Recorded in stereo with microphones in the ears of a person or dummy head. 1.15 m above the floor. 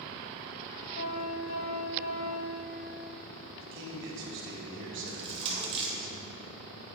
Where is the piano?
65° left (ahead or behind), 2.5 m.